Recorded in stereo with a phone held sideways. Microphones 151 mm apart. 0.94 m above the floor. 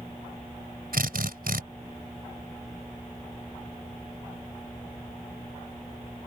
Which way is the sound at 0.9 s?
75° right (ahead or behind).